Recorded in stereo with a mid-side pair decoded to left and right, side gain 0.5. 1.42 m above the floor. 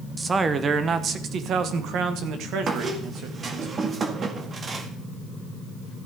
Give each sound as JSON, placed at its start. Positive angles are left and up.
{"t": 0.2, "sound": "a man speaking", "azimuth_deg": -25, "distance_m": 1.1}
{"t": 2.7, "sound": "a squeak", "azimuth_deg": -40, "distance_m": 1.8}